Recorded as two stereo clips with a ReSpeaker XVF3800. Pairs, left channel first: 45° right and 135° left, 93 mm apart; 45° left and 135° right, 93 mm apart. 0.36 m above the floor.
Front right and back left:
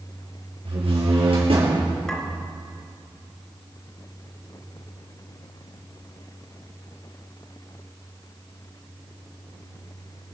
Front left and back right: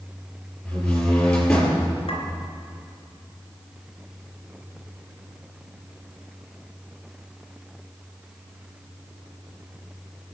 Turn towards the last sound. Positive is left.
turn(degrees=35)